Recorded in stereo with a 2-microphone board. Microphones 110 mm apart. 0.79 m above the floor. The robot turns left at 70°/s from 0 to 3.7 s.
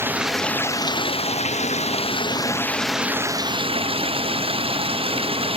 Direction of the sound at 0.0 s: 160° right.